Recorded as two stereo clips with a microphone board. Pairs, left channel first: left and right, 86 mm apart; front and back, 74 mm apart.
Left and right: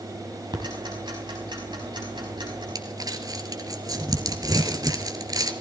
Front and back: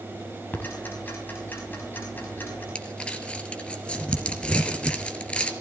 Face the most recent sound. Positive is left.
turn(degrees=-70)